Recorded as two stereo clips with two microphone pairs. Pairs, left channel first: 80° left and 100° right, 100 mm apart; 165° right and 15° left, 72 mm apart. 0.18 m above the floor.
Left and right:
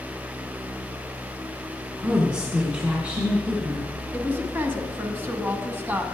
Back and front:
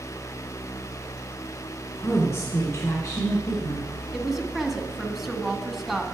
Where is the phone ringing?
I don't hear a phone ringing.